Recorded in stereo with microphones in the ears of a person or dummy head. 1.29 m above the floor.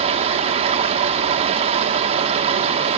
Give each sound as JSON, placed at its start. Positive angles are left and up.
{"t": 0.0, "sound": "running water", "side_deg": -35, "distance_m": 1.1}